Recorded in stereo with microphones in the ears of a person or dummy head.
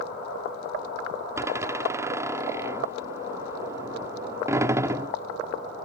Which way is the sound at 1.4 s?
15° right (ahead or behind).